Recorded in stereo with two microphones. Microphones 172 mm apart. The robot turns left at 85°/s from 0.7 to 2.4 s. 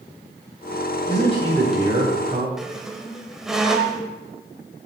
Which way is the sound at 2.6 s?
5° right (ahead or behind).